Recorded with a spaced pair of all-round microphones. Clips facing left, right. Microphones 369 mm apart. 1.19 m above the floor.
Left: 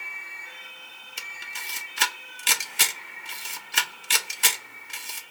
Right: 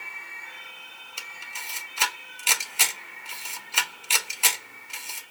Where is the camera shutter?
30° left (ahead or behind), 0.6 m.